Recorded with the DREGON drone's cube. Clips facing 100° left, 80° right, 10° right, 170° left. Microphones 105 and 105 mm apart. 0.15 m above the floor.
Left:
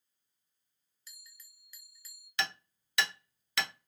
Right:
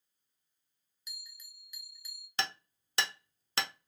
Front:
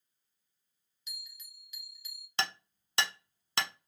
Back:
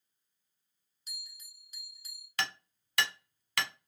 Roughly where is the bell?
Behind right.